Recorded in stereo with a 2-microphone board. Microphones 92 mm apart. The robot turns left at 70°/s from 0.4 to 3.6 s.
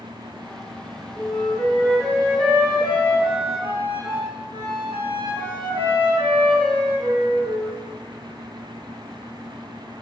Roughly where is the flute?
Left.